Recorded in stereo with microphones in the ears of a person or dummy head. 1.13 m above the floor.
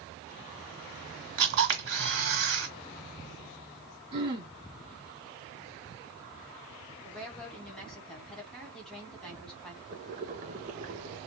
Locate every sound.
1.4 s a camera shutter: 60° right (ahead or behind), 1.8 m
4.1 s throat clearing: 30° right (ahead or behind), 1.2 m
7.0 s a woman speaking: 5° left (ahead or behind), 1.6 m
9.9 s boiling: 35° right (ahead or behind), 0.8 m